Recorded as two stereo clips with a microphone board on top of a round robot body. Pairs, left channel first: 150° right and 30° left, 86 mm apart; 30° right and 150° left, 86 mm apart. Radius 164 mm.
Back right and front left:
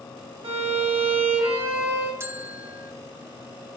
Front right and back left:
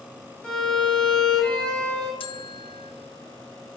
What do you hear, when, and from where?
0.4 s a violin: 50° left, 1.7 m
2.2 s a bell: 30° right, 0.7 m